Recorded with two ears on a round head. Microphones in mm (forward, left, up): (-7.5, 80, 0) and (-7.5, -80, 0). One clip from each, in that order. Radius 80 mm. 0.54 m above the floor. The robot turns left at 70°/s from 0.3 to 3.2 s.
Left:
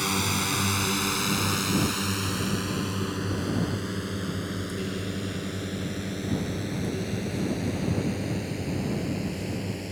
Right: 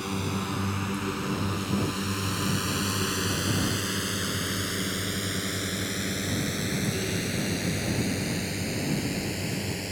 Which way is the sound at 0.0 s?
55° left (ahead or behind).